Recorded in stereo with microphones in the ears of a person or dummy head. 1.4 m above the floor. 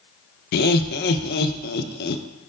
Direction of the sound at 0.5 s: 60° left (ahead or behind).